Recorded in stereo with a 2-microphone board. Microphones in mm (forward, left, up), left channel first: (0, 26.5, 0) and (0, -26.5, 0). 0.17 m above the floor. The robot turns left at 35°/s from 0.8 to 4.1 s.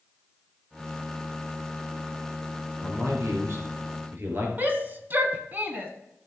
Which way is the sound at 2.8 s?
85° right.